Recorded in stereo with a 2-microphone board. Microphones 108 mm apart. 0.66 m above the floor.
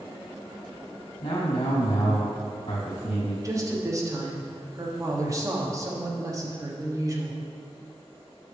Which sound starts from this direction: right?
A woman speaking, at 3.4 s.